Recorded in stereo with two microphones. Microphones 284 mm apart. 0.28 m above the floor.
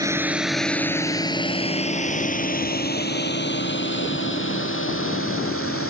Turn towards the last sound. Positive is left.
turn(degrees=50)  # may be behind; listen again after turning